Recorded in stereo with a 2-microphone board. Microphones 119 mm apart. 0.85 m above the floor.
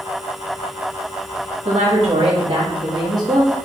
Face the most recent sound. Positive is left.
turn(degrees=-25)  # may be behind; listen again after turning